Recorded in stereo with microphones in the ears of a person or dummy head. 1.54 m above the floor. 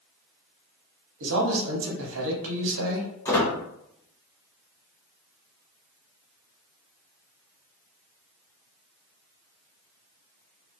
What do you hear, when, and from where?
1.2 s a man speaking: 80° right, 0.8 m
3.2 s a squeak: 15° left (ahead or behind), 1.5 m